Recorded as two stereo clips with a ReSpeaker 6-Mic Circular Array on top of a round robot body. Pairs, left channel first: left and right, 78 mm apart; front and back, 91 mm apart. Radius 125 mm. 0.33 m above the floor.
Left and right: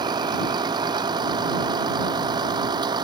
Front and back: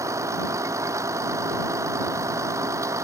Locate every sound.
0.0 s a vehicle: 120° right